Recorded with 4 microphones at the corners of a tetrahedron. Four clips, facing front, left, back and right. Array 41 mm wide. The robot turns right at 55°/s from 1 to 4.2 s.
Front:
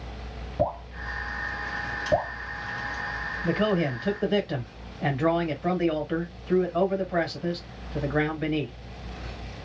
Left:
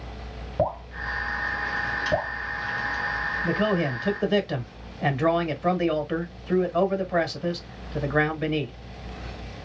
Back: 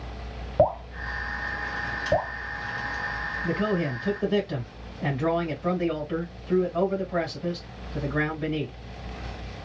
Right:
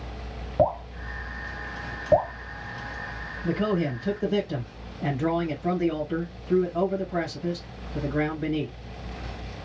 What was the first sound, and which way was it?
Dripping, 170° right.